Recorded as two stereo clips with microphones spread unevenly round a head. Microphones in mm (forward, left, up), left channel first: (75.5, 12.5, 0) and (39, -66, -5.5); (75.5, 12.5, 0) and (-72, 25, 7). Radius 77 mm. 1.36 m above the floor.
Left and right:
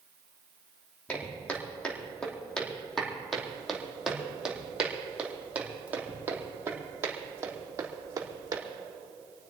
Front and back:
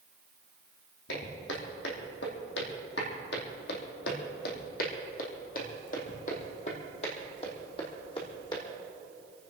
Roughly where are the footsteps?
Ahead.